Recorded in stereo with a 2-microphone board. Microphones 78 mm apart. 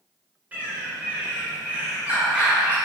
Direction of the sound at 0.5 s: 20° right (ahead or behind).